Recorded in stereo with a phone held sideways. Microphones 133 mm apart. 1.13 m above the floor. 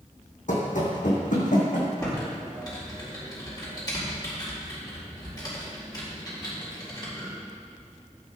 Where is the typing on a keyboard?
30° left (ahead or behind), 4.5 m.